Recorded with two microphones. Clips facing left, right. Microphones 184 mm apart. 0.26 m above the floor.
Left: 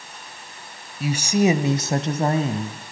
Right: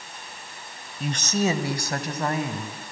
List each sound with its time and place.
1.0 s a woman speaking: 5° left (ahead or behind), 0.9 m; by 2.9 s 30° left (ahead or behind), 1.9 m